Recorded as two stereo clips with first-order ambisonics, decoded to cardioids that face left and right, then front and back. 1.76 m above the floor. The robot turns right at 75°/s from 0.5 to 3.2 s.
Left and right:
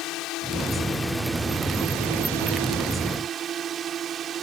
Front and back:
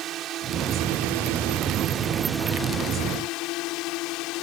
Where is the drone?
130° left; by 4.4 s 30° right.